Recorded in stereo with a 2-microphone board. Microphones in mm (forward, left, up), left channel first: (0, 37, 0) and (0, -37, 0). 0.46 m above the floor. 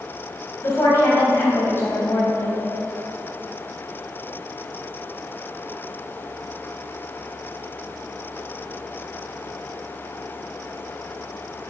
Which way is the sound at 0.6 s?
35° left (ahead or behind).